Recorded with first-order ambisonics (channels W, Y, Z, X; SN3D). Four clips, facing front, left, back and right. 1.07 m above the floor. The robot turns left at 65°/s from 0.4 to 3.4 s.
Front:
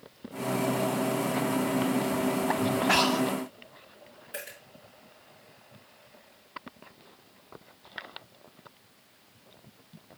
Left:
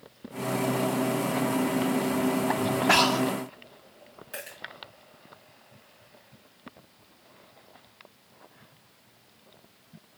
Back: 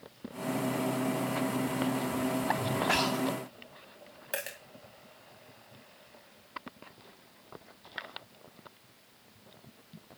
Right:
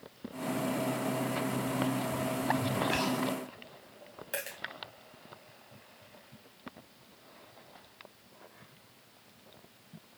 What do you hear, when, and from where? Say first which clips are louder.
2.9 s breathing: left 14 dB, front 5 dB; 75° left, 0.5 m; by 3.3 s 55° left, 0.5 m
4.3 s a dropped coin: right 2 dB, back 4 dB; 160° right, 2.5 m